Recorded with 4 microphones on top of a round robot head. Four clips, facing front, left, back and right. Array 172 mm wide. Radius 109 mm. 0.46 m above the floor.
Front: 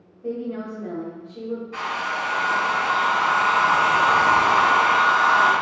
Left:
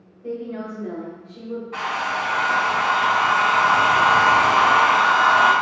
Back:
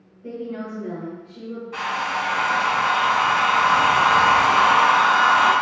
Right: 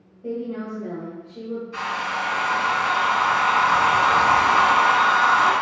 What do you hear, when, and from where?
0.2 s a woman speaking: 30° right, 1.1 m
1.7 s a hair dryer: 105° left, 1.8 m